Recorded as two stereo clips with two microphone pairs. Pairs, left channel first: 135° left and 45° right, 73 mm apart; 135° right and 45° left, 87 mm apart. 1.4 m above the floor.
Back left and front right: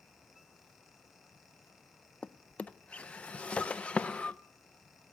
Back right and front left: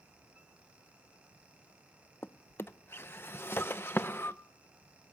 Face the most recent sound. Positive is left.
turn(degrees=-165)